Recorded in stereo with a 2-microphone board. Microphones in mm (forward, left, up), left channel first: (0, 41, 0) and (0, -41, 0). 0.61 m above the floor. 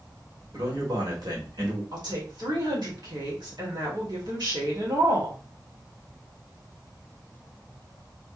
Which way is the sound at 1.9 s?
65° right (ahead or behind).